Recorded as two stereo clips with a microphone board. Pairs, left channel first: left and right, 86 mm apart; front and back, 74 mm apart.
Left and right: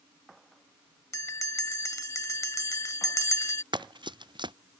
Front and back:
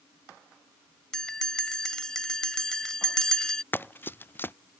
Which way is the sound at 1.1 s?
75° left.